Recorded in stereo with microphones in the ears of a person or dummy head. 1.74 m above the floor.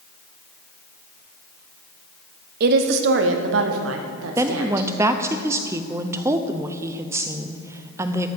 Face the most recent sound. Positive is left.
turn(degrees=-10)  # may be behind; listen again after turning